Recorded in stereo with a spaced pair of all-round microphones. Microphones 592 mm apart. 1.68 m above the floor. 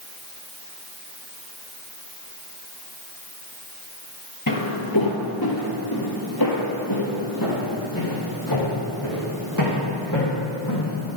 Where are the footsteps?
35° left (ahead or behind), 2.0 m; by 11.0 s 30° left (ahead or behind), 5.5 m.